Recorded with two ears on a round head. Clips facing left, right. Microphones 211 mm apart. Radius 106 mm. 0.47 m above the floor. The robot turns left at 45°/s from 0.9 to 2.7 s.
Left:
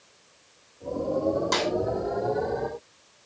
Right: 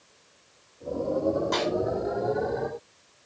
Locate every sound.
1.5 s a snare drum: 60° left (ahead or behind), 5 m; by 1.7 s 70° left (ahead or behind), 5 m